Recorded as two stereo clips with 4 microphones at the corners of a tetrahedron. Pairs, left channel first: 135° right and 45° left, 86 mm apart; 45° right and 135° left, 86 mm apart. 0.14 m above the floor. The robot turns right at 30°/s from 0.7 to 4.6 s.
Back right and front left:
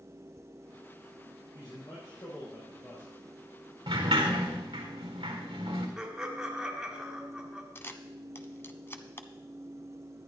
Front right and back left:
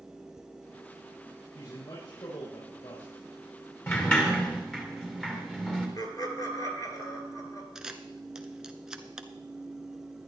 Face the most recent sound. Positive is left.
turn(degrees=-150)